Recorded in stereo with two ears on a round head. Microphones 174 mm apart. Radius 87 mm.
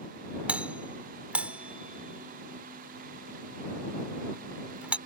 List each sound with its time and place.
0.5 s a doorbell: 5° right (ahead or behind)